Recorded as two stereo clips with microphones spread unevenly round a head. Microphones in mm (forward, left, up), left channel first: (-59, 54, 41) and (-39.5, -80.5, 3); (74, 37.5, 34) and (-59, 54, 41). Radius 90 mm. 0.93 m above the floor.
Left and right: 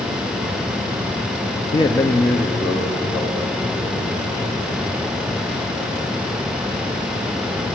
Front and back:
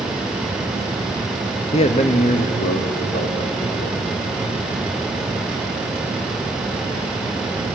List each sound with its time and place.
1.7 s a man speaking: 30° left, 1.2 m; by 4.2 s 5° right, 3.5 m